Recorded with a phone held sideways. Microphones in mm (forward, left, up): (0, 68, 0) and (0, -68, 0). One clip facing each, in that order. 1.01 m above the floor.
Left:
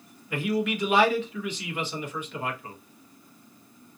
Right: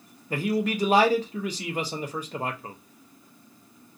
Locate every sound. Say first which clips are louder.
0.3 s a man speaking: right 1 dB; 40° right (ahead or behind), 0.7 m